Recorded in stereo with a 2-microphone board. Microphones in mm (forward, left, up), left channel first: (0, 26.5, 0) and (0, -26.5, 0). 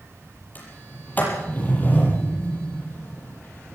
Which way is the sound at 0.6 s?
30° left (ahead or behind).